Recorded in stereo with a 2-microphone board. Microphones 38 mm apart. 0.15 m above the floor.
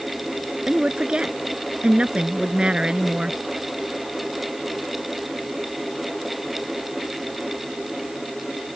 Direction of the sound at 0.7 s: 25° right (ahead or behind).